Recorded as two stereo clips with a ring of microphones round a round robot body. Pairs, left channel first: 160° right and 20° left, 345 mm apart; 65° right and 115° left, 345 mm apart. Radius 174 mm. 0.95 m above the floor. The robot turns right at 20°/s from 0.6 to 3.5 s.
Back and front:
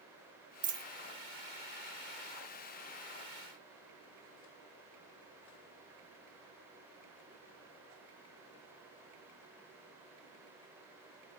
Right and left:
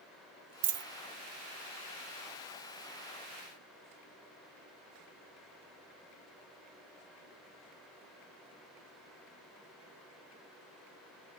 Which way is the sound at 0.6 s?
100° left.